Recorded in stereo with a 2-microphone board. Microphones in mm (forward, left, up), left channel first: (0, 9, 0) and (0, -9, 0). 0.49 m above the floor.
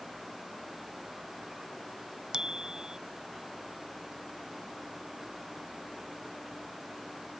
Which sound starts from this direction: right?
A bicycle bell, at 2.3 s.